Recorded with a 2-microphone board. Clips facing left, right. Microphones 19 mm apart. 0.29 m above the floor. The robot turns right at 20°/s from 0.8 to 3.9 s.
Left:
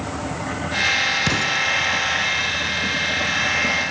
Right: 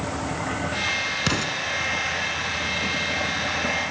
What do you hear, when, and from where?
1.3 s an explosion: 10° right (ahead or behind), 1.7 m; by 1.6 s centre (ahead or behind), 1.7 m